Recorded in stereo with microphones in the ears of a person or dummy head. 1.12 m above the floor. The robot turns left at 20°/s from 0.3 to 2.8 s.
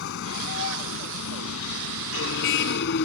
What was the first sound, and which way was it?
A vehicle, 115° left.